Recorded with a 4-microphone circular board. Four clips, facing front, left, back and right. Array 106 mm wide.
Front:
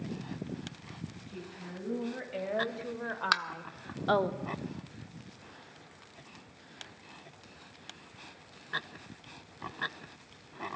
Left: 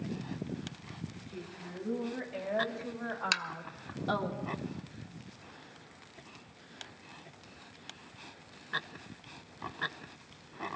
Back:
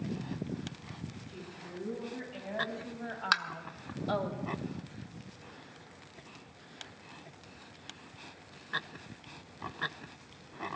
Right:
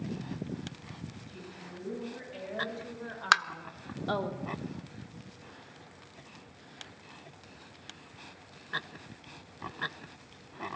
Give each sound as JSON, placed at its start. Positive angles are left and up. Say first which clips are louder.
{"t": 1.3, "sound": "a woman speaking", "louder": "left 2 dB, front 1 dB", "azimuth_deg": 30, "distance_m": 4.5}
{"t": 3.3, "sound": "tapping", "louder": "right 14 dB, even", "azimuth_deg": -90, "distance_m": 0.6}